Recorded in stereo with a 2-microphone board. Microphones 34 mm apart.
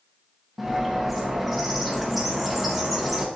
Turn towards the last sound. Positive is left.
turn(degrees=0)  # may be behind; listen again after turning